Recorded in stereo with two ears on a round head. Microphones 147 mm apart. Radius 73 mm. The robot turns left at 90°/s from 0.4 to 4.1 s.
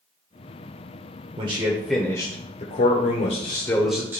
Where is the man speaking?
130° right, 1.1 m; by 4.2 s 20° right, 1.1 m.